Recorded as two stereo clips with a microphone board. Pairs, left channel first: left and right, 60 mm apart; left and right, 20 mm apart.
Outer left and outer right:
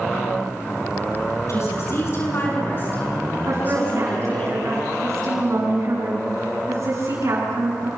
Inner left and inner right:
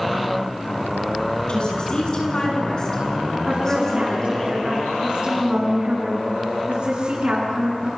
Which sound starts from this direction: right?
A woman speaking, at 3.5 s.